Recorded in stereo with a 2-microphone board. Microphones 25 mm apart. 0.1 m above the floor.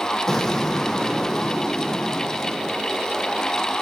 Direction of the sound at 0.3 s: 20° left (ahead or behind).